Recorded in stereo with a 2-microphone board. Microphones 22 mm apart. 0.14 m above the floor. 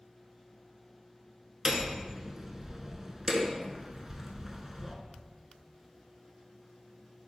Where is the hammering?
20° right (ahead or behind), 0.5 m.